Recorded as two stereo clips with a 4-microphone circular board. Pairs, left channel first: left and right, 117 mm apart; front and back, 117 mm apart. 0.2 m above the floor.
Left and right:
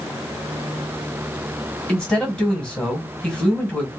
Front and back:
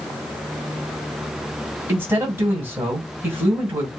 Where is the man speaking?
155° left, 1.5 m.